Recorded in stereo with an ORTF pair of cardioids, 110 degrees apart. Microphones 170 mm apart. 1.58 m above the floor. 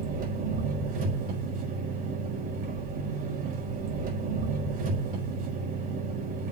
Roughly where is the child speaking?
I don't hear a child speaking.